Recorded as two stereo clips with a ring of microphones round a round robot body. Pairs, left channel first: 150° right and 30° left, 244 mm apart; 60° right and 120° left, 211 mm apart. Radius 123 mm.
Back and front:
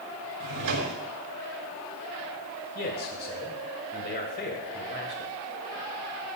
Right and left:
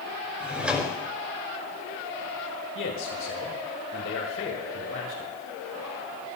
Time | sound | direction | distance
0.4 | a drawer | 35° left | 5 m
2.8 | a man speaking | 100° right | 2 m